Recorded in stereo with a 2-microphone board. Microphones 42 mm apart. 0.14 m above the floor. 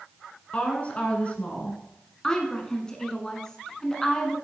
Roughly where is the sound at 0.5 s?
Left.